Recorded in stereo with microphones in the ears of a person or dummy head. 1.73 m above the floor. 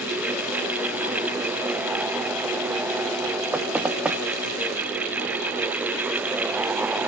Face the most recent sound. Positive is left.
turn(degrees=-5)  # may be behind; listen again after turning